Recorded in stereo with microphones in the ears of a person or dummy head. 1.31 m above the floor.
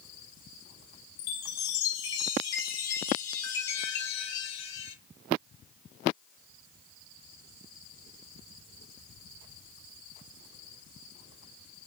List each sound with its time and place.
1.2 s a chime: 70° left (ahead or behind), 1.9 m